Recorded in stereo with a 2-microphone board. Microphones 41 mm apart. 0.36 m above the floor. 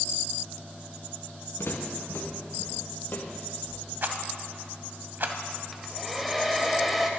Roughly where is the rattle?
Right.